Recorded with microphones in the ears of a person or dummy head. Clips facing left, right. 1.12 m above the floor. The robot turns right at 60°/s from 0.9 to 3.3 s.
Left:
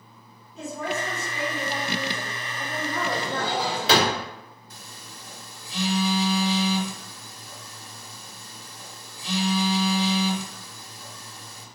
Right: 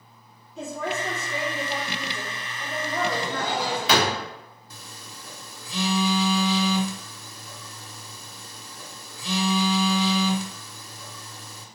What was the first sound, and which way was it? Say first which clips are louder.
A woman speaking: even; 60° right.